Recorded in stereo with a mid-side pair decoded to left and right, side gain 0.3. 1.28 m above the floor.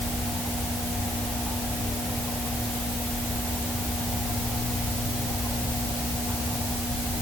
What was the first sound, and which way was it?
Only background noise.